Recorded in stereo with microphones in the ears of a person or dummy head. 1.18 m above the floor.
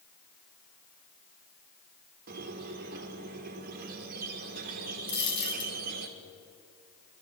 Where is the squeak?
50° right (ahead or behind), 1.0 m.